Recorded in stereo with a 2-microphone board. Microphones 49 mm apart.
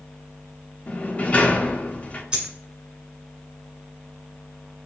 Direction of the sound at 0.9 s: 30° left (ahead or behind).